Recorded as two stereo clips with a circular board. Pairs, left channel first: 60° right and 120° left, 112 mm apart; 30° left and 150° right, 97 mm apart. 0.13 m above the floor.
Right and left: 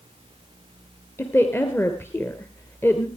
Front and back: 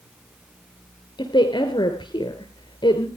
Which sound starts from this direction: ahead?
A woman speaking, at 1.2 s.